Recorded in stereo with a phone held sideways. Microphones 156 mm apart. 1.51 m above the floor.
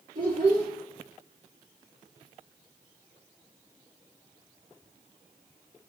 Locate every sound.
0.1 s a child speaking: 65° right (ahead or behind), 2 m